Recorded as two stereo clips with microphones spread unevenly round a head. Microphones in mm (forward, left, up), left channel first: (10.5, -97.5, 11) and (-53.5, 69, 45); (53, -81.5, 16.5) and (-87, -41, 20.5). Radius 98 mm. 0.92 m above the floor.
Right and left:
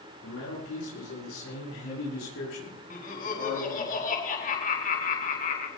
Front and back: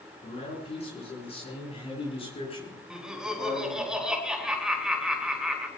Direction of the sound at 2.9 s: 110° right.